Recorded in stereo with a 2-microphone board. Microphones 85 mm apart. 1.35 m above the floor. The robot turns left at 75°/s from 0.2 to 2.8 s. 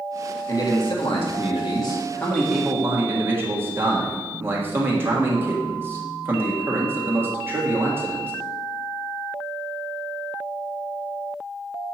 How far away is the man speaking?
About 1.6 m.